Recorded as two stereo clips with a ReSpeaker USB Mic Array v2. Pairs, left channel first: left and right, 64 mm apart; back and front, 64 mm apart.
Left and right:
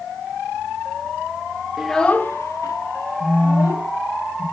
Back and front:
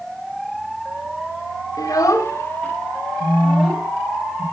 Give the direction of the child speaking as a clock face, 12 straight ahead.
6 o'clock.